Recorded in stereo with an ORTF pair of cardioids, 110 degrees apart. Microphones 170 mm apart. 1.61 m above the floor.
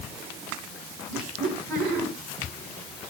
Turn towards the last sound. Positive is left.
turn(degrees=-65)